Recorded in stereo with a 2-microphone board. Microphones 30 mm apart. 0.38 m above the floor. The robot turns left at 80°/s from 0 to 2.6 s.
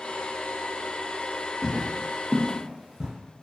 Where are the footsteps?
25° left (ahead or behind), 0.6 m; by 3.1 s 10° right (ahead or behind), 0.8 m.